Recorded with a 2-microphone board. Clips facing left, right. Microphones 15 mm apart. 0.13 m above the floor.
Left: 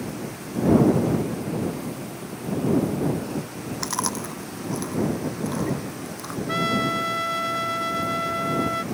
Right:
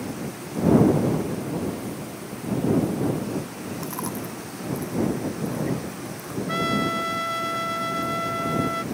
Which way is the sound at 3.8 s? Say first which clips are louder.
Left 6 dB; 75° left (ahead or behind).